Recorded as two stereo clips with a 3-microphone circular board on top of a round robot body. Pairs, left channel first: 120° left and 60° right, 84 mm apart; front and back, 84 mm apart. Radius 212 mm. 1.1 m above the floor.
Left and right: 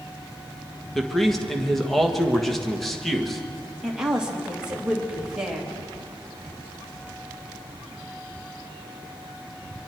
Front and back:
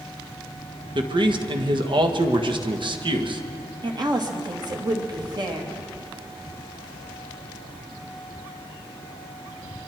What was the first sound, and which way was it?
A man speaking, 150° right.